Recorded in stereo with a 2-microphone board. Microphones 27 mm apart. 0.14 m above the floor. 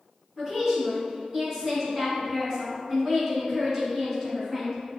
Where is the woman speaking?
20° right (ahead or behind), 1.1 m.